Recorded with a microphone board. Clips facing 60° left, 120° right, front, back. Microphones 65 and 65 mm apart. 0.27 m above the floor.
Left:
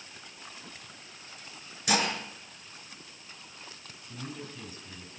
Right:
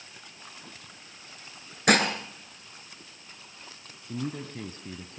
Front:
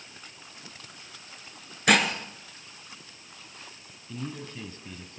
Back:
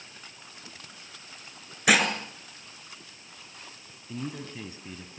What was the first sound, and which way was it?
Dishes clattering, 95° right.